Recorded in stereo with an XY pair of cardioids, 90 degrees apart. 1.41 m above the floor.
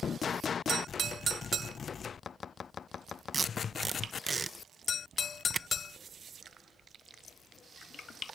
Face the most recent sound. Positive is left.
turn(degrees=-30)